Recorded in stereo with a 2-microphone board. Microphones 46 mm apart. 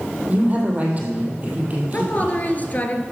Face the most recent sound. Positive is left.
turn(degrees=40)  # may be behind; listen again after turning